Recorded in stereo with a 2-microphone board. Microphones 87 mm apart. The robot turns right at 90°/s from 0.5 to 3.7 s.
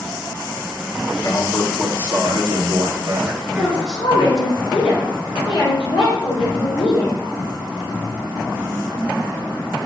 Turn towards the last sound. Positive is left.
turn(degrees=80)